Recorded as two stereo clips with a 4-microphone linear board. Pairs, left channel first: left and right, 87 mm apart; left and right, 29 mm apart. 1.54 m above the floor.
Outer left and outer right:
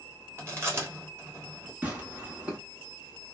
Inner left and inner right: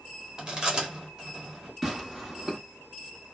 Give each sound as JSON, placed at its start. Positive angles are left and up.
{"t": 0.4, "sound": "chewing", "side_deg": -30, "distance_m": 1.2}
{"t": 1.8, "sound": "tearing paper", "side_deg": -15, "distance_m": 1.1}